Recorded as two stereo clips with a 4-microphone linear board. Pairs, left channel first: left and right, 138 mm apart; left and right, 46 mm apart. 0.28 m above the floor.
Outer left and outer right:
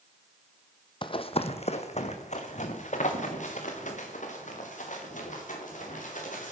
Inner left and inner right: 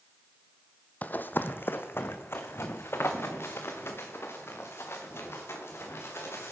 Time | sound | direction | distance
1.0 | running footsteps | 40° left (ahead or behind) | 0.6 m